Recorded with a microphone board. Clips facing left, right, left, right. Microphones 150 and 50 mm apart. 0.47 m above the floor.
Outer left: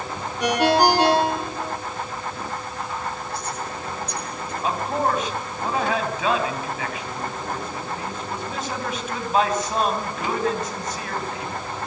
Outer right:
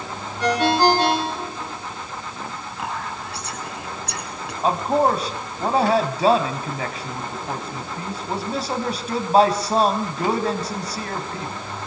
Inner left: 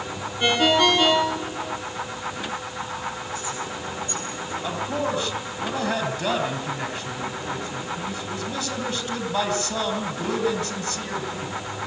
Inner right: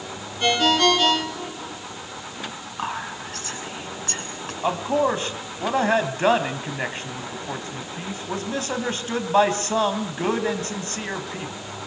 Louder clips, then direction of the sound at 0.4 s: Even, even; 15° left (ahead or behind).